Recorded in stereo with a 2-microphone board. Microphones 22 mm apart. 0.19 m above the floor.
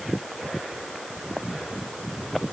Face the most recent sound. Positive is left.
No sound to turn to.